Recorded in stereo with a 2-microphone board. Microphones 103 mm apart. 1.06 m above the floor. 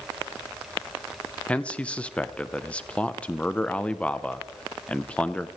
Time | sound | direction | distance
1.5 | a man speaking | 10° left (ahead or behind) | 0.6 m